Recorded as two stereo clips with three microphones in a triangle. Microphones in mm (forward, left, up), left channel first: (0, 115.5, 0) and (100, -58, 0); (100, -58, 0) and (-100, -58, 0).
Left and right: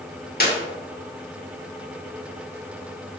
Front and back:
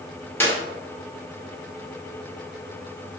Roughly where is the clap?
Left.